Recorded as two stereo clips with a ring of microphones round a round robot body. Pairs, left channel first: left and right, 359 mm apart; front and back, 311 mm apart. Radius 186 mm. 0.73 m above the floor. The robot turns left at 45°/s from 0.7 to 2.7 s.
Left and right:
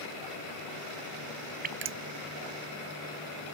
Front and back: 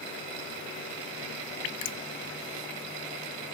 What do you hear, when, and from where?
1.6 s dripping: 20° right; by 2.0 s 40° right